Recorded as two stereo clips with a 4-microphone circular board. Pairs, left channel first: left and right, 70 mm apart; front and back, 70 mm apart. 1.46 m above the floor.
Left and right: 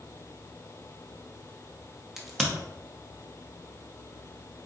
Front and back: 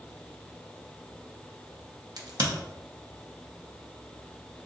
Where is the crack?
175° right, 0.8 m.